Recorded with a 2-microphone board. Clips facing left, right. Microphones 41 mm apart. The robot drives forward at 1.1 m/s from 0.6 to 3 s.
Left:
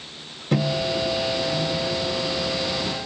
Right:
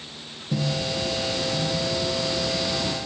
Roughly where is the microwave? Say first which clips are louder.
Left 4 dB; left.